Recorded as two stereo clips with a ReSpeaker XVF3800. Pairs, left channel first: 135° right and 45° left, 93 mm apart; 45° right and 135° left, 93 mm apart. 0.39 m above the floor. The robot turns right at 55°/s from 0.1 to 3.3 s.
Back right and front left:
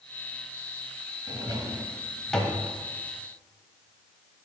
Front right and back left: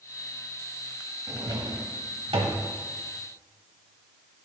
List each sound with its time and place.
1.3 s a drawer: 80° left, 0.9 m; by 2.6 s 155° left, 0.9 m